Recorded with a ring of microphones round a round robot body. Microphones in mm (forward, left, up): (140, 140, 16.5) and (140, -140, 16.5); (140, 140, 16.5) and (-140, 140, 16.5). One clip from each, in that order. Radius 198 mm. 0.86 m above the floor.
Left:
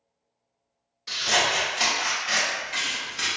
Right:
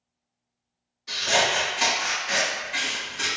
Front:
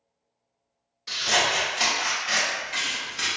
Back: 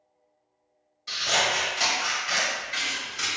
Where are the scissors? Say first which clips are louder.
Right 1 dB, front 1 dB; 60° left, 1.5 m.